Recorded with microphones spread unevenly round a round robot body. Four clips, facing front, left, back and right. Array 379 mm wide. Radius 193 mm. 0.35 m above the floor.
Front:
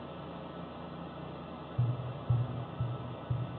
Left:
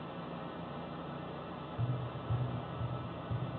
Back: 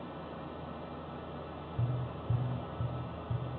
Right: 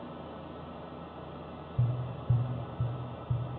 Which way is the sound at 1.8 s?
65° right.